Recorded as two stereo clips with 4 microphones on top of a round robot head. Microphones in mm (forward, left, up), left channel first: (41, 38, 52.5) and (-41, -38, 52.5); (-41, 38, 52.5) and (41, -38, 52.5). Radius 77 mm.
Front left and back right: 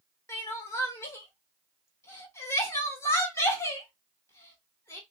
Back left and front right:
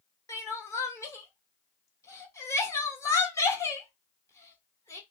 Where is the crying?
90° left, 1.2 m.